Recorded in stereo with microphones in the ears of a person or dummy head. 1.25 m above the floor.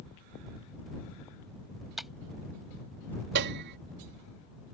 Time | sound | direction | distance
2.0 | tapping | centre (ahead or behind) | ?
3.4 | a piano | 60° right (ahead or behind) | ?